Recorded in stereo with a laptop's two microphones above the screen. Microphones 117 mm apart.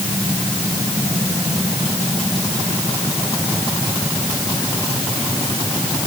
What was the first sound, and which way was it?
Only background noise.